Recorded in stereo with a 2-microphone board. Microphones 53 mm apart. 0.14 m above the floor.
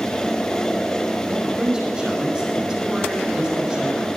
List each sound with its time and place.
1.3 s a man speaking: 10° right (ahead or behind), 6 m